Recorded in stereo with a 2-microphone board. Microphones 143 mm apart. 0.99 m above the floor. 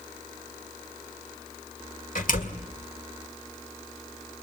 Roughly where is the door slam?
Left.